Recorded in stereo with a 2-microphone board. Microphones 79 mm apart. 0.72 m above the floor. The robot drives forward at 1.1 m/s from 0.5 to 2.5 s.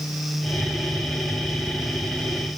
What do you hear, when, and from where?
Only background noise.